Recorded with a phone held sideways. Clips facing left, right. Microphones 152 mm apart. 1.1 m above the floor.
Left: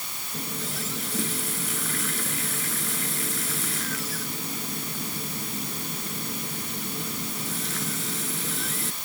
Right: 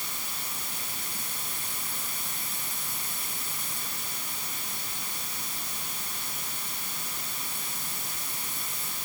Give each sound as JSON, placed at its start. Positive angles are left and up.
{"t": 0.3, "sound": "a running tap", "side_deg": 75}